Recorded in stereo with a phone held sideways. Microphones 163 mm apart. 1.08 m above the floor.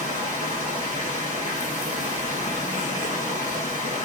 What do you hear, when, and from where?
0.0 s running water: 50° left (ahead or behind), 2.5 m